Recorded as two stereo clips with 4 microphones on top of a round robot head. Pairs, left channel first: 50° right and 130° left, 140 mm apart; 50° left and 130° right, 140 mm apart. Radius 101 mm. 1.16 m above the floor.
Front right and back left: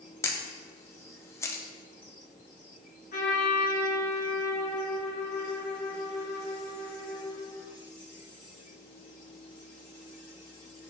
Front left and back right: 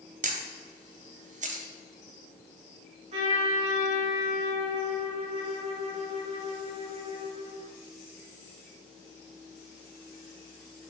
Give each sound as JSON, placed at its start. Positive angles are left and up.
{"t": 0.2, "sound": "a camera shutter", "azimuth_deg": -120, "distance_m": 0.9}
{"t": 3.1, "sound": "a trumpet", "azimuth_deg": -80, "distance_m": 1.3}